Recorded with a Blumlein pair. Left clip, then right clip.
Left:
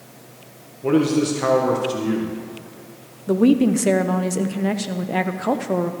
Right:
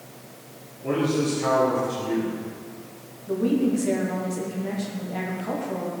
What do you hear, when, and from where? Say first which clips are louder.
0.8 s a man speaking: left 5 dB; 30° left, 1.4 m
3.3 s a woman speaking: left 6 dB; 30° left, 0.7 m